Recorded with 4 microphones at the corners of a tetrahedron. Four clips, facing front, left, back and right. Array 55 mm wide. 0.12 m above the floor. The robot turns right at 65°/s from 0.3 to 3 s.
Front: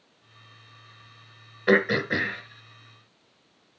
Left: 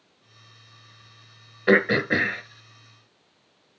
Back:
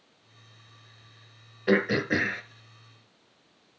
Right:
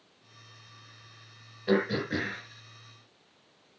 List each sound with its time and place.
1.7 s throat clearing: 80° left, 1.1 m; by 2.4 s 125° left, 1.1 m